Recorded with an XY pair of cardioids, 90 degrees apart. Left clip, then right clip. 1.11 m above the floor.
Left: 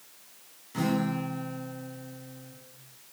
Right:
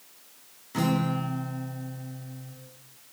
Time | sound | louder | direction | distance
0.7 | a guitar | right 2 dB | 40° right | 0.9 m